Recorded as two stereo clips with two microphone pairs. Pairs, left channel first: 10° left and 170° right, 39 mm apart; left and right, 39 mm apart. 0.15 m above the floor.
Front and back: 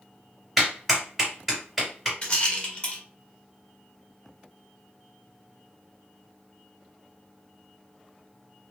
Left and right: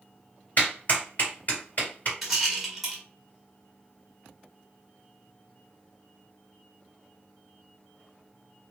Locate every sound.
0.6 s a clap: 95° left, 1.9 m
2.2 s a rattle: 5° right, 1.2 m